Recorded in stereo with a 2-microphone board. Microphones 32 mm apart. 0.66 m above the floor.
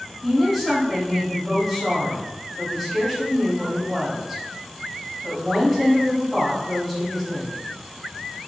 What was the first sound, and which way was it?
A woman speaking, 10° right (ahead or behind).